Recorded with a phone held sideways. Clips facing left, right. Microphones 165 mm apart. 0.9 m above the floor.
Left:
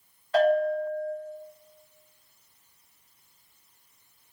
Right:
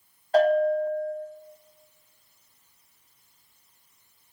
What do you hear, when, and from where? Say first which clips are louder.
0.3 s a bell: right 2 dB; 40° right (ahead or behind), 1.1 m